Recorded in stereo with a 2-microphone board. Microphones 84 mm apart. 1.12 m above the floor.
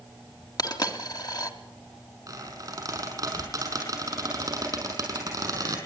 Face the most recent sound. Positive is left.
turn(degrees=-40)  # may be behind; listen again after turning